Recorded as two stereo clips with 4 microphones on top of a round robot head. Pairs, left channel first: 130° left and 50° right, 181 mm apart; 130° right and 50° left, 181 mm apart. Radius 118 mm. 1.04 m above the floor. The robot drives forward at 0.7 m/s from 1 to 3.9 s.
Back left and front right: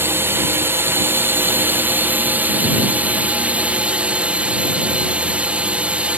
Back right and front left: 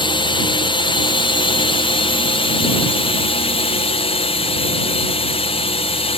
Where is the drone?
115° right; by 6.2 s 125° right.